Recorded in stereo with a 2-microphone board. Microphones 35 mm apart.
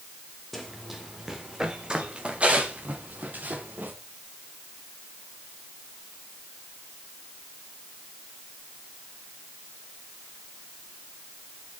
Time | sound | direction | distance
0.5 | running footsteps | centre (ahead or behind) | 2.5 m